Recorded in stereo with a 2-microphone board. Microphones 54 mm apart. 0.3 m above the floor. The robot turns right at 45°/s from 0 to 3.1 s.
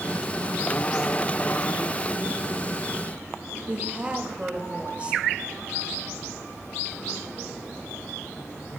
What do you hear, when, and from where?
3.7 s a woman speaking: 20° right (ahead or behind), 0.9 m